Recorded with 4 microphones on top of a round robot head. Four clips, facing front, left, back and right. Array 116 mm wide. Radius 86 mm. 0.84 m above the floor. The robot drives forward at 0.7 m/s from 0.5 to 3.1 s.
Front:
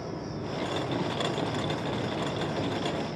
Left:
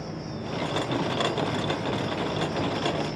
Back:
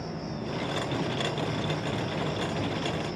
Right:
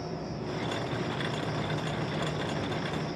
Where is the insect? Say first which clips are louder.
Left 1 dB, even; 45° left, 3 m; by 3.2 s 85° left, 2 m.